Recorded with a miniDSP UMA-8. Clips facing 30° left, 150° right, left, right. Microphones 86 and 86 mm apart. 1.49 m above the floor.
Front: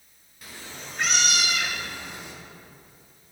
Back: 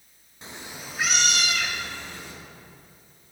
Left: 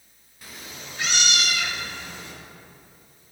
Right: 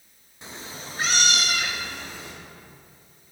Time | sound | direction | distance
0.4 | a cat meowing | 125° right | 0.8 m